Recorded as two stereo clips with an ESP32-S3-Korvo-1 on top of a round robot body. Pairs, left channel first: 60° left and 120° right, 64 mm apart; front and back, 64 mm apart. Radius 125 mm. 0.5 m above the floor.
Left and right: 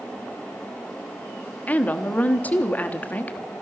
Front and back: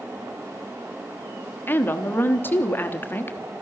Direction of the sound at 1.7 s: 20° left.